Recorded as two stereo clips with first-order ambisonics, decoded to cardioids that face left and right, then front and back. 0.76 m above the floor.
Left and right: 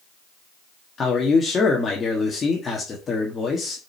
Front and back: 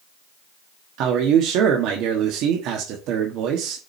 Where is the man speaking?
160° left, 1.3 m.